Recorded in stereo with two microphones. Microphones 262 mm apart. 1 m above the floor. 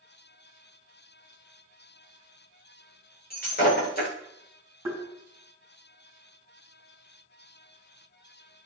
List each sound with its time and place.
3.3 s breaking glass: 35° left (ahead or behind), 7 m
4.8 s tapping: 10° right (ahead or behind), 5 m